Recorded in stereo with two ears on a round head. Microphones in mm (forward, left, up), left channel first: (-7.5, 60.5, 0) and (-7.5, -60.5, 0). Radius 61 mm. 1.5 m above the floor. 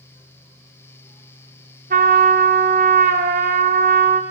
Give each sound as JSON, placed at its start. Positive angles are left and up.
{"t": 1.9, "sound": "a trumpet", "side_deg": -65, "distance_m": 0.8}